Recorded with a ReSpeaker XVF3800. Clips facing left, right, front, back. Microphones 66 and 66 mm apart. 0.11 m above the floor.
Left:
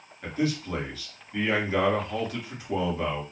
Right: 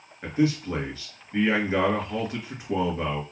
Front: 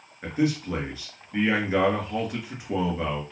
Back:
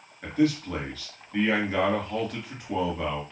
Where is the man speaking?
65° right, 1.4 m.